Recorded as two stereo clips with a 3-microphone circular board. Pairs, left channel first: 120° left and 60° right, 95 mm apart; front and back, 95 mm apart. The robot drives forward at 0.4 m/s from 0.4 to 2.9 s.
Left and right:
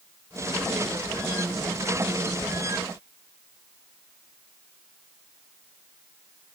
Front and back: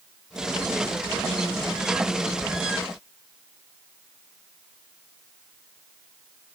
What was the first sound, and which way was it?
Only background noise.